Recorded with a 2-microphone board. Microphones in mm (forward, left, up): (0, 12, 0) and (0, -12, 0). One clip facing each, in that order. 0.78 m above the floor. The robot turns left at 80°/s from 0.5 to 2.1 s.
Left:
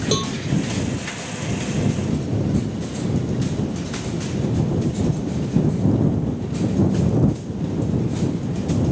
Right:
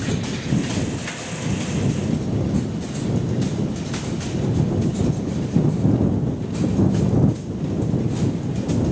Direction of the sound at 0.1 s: 75° left (ahead or behind).